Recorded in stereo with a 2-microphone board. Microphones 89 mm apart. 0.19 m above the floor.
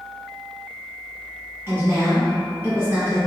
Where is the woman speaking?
30° right (ahead or behind), 1.6 m.